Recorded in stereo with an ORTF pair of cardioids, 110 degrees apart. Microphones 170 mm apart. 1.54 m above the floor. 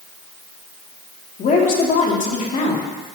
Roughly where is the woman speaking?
Ahead left.